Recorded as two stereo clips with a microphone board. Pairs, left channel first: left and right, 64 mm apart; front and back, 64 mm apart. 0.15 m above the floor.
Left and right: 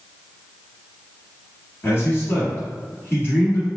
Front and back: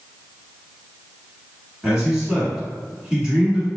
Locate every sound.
1.8 s a man speaking: 110° left, 1.4 m